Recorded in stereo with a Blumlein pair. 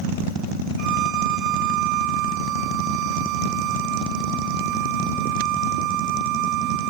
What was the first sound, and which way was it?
A violin, 40° right.